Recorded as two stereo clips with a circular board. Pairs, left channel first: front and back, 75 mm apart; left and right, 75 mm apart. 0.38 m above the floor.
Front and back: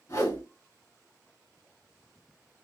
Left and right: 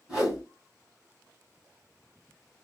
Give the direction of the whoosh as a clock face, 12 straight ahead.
12 o'clock.